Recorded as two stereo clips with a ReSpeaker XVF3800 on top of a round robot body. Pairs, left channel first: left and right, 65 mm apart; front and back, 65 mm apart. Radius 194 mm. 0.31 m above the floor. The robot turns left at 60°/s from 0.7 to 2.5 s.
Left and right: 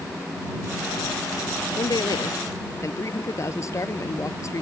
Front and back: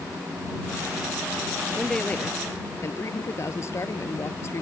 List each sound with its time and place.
1.8 s a man speaking: 95° left; by 4.6 s 50° left